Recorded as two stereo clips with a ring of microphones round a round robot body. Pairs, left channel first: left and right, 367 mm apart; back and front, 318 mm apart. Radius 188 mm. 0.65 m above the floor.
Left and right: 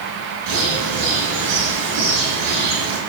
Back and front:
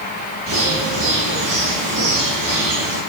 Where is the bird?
75° right, 4 m.